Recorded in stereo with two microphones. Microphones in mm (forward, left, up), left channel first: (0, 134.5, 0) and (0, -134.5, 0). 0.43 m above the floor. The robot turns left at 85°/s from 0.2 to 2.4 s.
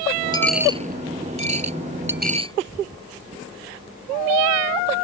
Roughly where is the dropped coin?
Centre.